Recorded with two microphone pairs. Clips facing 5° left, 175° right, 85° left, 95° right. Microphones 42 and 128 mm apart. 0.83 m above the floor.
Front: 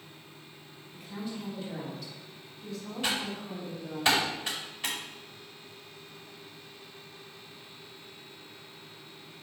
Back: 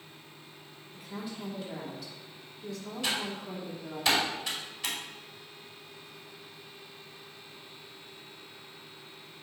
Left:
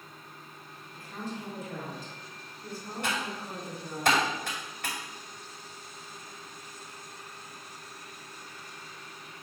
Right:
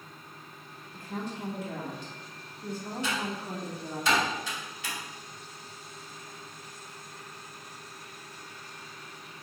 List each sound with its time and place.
0.9 s a woman speaking: 90° right, 2.5 m
3.0 s typing on a keyboard: 60° left, 2.5 m